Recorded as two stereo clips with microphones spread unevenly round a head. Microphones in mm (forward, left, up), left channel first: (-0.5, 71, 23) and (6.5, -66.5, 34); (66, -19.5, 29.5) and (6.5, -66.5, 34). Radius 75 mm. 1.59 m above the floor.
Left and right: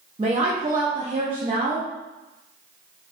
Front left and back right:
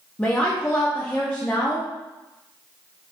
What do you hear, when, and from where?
0.2 s a woman speaking: 35° right, 0.6 m